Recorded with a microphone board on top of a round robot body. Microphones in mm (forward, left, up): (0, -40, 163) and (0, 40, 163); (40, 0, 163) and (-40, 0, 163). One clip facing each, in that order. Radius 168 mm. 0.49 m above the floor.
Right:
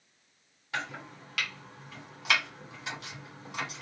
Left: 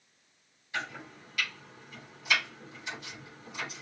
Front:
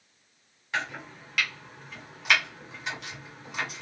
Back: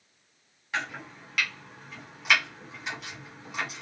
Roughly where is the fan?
No fan in this recording.